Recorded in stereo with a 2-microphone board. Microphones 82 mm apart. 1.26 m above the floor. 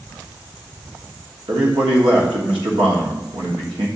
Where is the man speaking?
75° right (ahead or behind), 1.3 m.